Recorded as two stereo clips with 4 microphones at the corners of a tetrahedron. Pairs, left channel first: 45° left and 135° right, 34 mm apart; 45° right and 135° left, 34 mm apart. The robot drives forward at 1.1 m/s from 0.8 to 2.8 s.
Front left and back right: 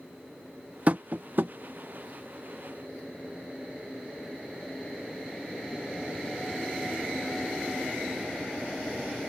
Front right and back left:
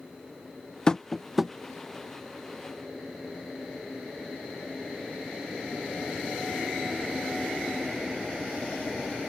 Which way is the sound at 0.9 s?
105° right.